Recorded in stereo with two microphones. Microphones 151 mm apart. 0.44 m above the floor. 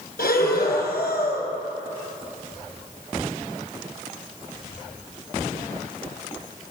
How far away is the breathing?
About 2.5 m.